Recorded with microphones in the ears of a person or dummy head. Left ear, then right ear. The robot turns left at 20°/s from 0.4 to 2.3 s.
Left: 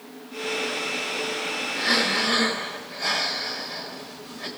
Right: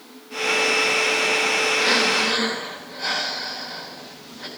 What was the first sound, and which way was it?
Breathing, 10° right (ahead or behind).